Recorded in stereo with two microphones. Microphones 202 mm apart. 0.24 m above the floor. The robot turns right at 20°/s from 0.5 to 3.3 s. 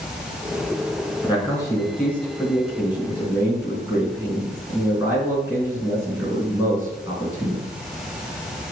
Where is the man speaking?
155° left, 3 m; by 7.7 s 165° right, 3 m.